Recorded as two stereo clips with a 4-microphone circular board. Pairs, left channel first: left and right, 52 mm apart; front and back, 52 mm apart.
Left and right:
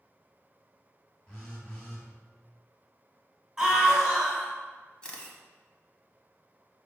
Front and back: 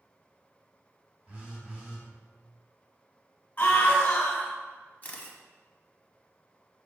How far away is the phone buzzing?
About 1.8 m.